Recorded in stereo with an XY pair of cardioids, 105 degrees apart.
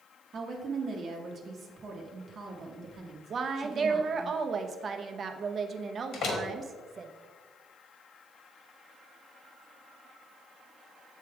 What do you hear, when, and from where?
0.3 s a woman speaking: 50° right, 1.0 m
3.3 s a woman speaking: 45° right, 0.7 m
6.1 s a door slam: 65° left, 1.5 m